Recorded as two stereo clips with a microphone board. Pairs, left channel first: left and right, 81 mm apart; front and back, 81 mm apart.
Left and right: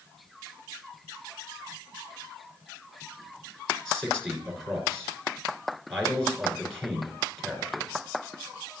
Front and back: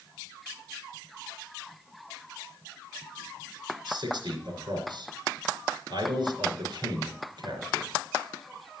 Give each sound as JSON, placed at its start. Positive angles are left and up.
{"t": 3.9, "sound": "a man speaking", "azimuth_deg": 175, "distance_m": 3.5}